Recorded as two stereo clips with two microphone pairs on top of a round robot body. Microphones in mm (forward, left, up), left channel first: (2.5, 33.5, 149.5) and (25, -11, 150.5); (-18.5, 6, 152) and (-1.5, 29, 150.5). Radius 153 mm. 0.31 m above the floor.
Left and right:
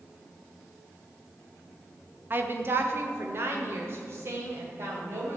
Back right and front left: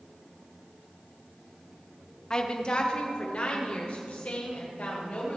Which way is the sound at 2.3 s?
75° right.